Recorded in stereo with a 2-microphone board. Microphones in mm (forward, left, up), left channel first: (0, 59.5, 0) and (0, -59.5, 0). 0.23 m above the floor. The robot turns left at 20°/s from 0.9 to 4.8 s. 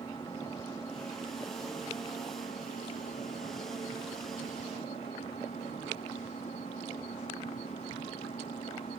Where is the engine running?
145° left; by 9.0 s 65° left.